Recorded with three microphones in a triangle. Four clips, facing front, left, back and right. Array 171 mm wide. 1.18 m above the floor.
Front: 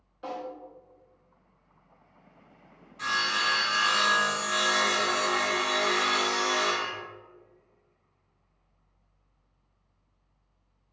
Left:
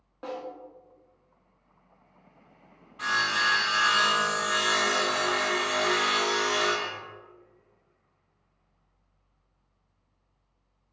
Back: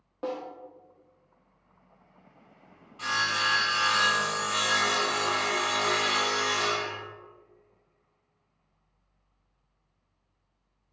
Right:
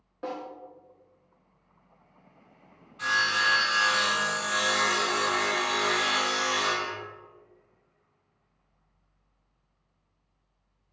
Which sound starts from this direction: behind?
A snare drum, at 0.2 s.